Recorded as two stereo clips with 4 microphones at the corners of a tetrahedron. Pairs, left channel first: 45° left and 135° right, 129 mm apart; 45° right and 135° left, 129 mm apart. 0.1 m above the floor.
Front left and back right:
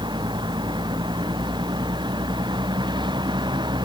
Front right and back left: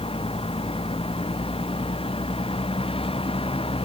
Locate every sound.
0.0 s a vehicle: 85° right